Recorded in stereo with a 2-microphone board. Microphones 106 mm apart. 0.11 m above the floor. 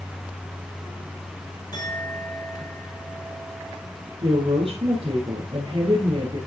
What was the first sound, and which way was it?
A clink, 40° left (ahead or behind).